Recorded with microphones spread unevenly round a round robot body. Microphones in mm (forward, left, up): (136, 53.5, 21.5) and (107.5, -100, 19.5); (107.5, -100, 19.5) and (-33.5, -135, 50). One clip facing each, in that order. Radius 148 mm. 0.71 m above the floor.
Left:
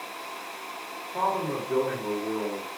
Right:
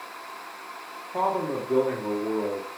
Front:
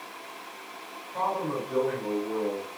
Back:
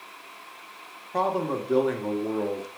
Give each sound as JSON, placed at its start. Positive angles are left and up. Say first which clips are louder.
{"t": 1.1, "sound": "a man speaking", "louder": "right 2 dB, back 3 dB", "azimuth_deg": -160, "distance_m": 1.6}